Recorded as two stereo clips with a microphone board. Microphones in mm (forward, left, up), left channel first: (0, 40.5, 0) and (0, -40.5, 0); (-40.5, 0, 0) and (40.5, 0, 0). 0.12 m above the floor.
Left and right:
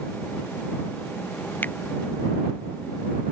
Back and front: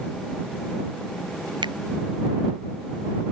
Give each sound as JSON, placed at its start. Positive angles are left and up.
{"t": 1.6, "sound": "a finger snap", "azimuth_deg": 20}